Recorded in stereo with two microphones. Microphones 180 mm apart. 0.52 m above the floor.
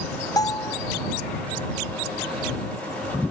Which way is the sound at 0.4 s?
20° left (ahead or behind).